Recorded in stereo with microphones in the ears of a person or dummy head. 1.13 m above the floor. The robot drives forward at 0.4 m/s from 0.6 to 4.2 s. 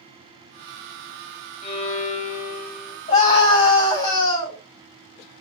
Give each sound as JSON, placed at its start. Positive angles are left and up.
{"t": 1.6, "sound": "a violin", "side_deg": 35, "distance_m": 1.5}
{"t": 3.1, "sound": "a scream", "side_deg": 40, "distance_m": 2.5}